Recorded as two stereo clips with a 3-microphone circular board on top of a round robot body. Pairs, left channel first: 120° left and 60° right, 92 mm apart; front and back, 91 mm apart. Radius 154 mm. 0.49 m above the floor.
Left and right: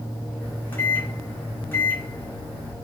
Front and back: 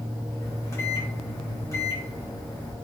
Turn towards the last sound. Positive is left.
turn(degrees=55)